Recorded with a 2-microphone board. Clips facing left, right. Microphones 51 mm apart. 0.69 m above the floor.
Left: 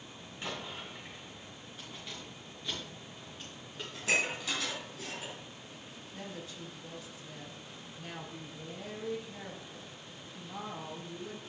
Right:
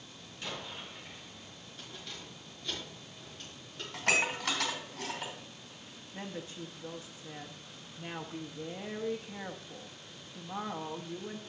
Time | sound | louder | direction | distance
0.4 | an explosion | left 1 dB | 20° left (ahead or behind) | 5.5 m
1.8 | keys jangling | even | 10° left (ahead or behind) | 6 m
3.9 | dishes clattering | right 2 dB | 65° right (ahead or behind) | 2.5 m
6.1 | a woman speaking | right 3 dB | 30° right (ahead or behind) | 0.8 m